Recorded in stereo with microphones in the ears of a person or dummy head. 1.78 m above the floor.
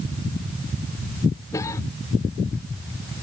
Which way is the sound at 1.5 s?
20° left (ahead or behind).